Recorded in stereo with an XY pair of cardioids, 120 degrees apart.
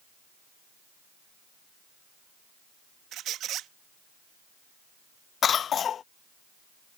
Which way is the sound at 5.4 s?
45° left.